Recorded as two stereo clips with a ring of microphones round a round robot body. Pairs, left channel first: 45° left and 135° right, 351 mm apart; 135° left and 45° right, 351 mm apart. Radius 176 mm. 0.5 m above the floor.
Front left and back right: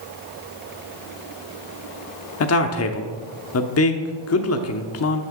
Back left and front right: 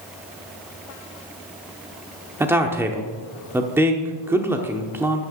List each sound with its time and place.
2.4 s a man speaking: 35° left, 1.0 m